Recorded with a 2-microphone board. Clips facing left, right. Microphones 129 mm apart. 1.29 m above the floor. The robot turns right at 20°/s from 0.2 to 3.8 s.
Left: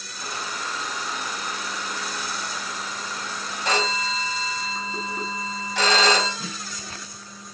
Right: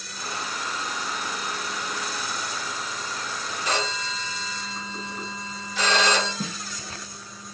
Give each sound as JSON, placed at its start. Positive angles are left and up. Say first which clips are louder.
{"t": 3.6, "sound": "a phone ringing", "louder": "left 4 dB", "side_deg": 65, "distance_m": 2.5}
{"t": 6.4, "sound": "a snare drum", "louder": "right 3 dB", "side_deg": -55, "distance_m": 1.1}